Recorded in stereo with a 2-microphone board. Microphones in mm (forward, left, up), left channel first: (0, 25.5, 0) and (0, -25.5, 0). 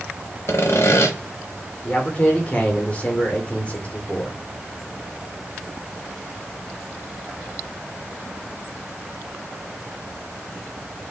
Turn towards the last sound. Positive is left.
turn(degrees=25)  # may be behind; listen again after turning